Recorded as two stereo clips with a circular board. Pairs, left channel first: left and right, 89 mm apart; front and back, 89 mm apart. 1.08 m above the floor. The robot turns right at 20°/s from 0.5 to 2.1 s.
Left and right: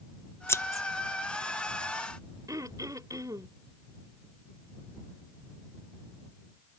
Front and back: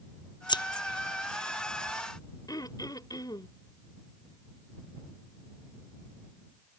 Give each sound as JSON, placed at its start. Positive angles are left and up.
{"t": 0.5, "sound": "scissors", "azimuth_deg": 30}
{"t": 2.5, "sound": "throat clearing", "azimuth_deg": -40}